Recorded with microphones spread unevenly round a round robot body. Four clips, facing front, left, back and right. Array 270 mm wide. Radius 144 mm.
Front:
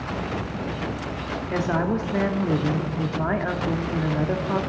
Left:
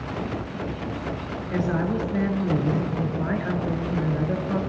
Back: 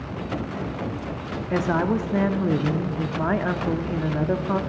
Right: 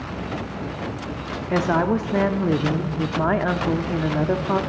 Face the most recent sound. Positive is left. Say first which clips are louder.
# right 5 dB, back 2 dB
turn(degrees=-100)